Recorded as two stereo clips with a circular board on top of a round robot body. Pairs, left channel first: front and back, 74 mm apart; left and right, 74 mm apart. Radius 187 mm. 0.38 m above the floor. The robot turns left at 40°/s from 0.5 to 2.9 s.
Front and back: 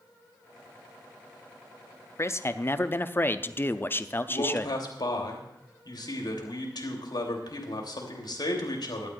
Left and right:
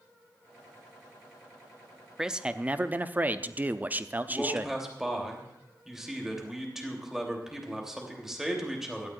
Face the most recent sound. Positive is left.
turn(degrees=-5)